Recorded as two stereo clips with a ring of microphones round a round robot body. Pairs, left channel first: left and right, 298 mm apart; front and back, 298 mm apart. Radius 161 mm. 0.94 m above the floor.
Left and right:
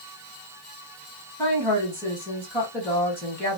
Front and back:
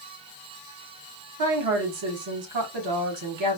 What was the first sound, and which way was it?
A woman speaking, 175° left.